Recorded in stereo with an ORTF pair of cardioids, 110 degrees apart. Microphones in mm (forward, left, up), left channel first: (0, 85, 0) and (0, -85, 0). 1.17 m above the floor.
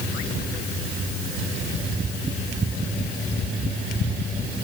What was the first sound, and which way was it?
Only background noise.